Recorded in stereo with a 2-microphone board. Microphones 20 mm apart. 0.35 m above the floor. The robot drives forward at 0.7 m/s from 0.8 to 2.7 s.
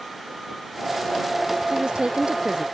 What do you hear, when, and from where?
1.7 s a woman speaking: 45° right (ahead or behind)